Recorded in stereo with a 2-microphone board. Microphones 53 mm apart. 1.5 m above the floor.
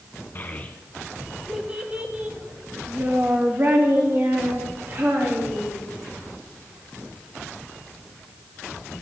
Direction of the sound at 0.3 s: 40° left (ahead or behind).